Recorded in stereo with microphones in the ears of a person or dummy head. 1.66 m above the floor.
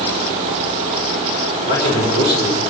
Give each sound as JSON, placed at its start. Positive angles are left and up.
{"t": 1.6, "sound": "a man speaking", "side_deg": -30, "distance_m": 4.0}